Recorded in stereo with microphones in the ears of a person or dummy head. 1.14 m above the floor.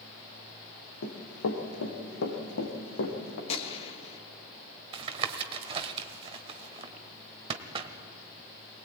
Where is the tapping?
40° right (ahead or behind), 1.4 m.